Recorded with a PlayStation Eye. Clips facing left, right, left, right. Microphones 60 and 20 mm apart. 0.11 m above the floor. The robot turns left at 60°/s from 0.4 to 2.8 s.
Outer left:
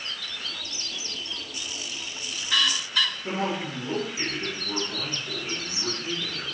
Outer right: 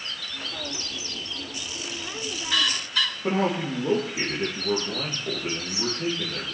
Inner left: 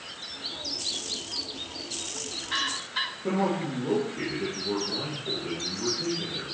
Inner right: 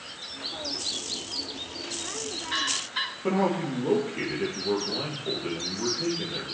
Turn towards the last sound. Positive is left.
turn(degrees=-60)  # may be behind; listen again after turning